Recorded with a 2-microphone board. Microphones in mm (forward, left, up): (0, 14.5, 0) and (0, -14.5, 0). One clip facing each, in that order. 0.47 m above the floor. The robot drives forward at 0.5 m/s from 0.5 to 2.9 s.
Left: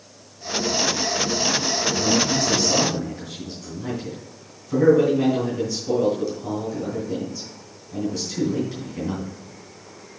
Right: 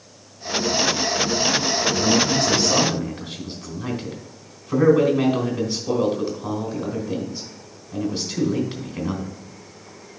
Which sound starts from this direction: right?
A man speaking, at 1.9 s.